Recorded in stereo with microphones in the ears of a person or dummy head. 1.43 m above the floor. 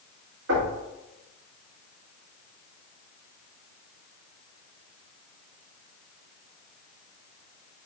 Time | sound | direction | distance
0.5 | knocking | 75° right (ahead or behind) | 1.9 m